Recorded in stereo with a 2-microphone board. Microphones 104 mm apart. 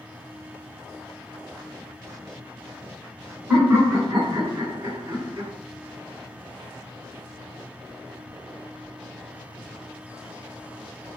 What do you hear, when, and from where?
3.5 s laughter: 20° right (ahead or behind), 1.4 m; by 5.5 s 40° right (ahead or behind), 2 m